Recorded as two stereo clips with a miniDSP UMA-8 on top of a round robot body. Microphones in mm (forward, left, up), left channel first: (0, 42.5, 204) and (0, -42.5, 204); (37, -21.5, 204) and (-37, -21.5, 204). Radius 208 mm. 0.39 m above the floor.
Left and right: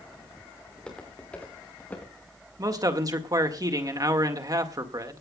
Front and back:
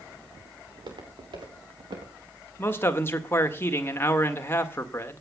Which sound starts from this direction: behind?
Footsteps, at 0.7 s.